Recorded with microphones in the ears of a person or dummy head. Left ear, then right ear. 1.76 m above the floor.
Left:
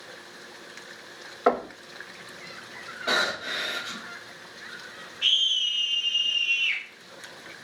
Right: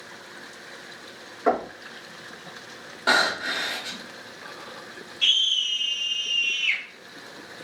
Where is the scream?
65° right (ahead or behind), 0.9 m.